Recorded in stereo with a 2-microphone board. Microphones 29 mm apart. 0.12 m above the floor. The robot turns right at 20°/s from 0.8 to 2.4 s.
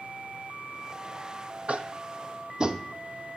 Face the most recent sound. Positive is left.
turn(degrees=-25)  # may be behind; listen again after turning